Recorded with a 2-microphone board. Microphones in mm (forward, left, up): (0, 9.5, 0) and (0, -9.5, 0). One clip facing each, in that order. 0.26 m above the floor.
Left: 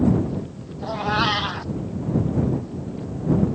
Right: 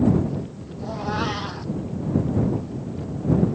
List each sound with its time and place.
0.8 s a cat meowing: 50° left (ahead or behind)